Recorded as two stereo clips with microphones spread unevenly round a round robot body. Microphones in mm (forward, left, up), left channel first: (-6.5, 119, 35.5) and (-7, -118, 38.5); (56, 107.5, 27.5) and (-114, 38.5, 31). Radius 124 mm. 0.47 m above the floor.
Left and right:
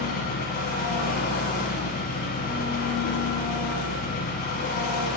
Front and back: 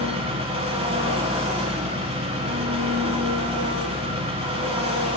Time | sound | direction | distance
0.0 | an engine running | 145° left | 1.1 m